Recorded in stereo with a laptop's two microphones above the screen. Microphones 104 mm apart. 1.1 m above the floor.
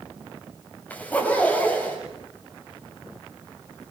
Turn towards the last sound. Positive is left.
turn(degrees=15)  # may be behind; listen again after turning